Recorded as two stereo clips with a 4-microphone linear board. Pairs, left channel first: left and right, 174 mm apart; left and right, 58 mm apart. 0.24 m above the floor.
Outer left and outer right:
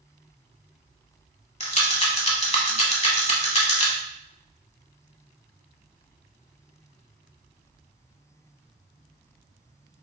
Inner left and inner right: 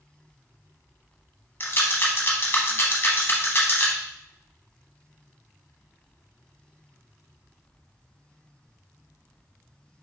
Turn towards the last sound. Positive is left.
turn(degrees=40)  # may be behind; listen again after turning